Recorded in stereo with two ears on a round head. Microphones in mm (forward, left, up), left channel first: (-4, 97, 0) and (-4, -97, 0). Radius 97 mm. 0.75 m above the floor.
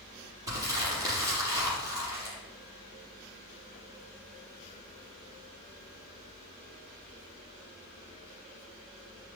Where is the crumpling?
15° right (ahead or behind), 6 m.